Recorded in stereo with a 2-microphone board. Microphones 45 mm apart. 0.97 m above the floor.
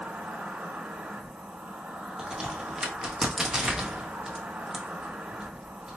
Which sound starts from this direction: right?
An insect, at 0.0 s.